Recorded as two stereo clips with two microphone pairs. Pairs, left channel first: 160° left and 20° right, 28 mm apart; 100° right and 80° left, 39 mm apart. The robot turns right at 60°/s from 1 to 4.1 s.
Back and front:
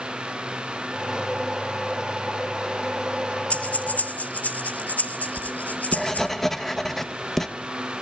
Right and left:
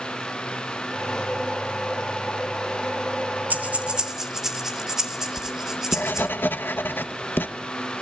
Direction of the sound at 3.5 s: 120° left.